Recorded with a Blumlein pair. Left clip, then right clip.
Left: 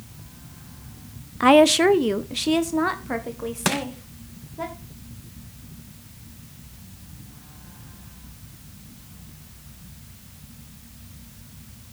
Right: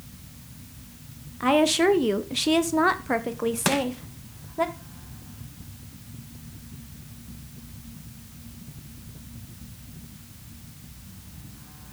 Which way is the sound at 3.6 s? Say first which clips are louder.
Even; 5° left.